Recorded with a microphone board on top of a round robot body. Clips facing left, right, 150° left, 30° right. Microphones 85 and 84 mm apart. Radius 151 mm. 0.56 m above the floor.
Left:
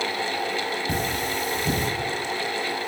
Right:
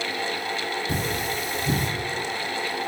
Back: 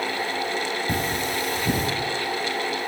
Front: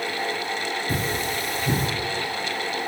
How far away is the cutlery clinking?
About 1.3 m.